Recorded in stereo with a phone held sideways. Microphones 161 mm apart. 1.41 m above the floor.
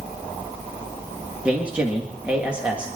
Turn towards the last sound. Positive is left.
turn(degrees=-5)  # may be behind; listen again after turning